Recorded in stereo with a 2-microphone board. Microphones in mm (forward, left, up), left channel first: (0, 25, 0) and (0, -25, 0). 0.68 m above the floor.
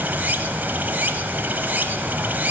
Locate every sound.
0.0 s running water: 40° right (ahead or behind), 1.0 m